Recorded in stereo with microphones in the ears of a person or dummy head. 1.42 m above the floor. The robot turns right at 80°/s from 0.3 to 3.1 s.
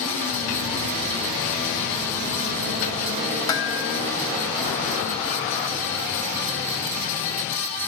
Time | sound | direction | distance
3.5 | dishes clattering | 30° left (ahead or behind) | 2.0 m